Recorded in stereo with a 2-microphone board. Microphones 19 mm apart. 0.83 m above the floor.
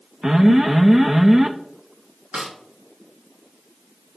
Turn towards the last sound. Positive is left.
turn(degrees=-35)  # may be behind; listen again after turning